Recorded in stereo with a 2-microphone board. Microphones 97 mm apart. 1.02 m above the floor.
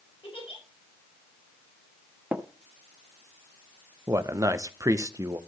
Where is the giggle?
80° left, 5 m.